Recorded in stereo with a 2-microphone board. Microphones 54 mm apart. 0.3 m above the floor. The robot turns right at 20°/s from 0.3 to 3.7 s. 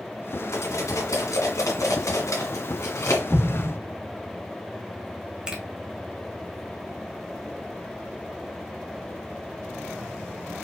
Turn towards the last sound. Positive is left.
turn(degrees=-15)  # may be behind; listen again after turning